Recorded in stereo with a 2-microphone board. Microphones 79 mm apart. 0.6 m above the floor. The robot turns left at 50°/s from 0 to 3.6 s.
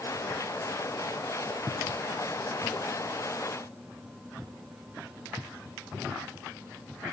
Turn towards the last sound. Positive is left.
No sound to turn to.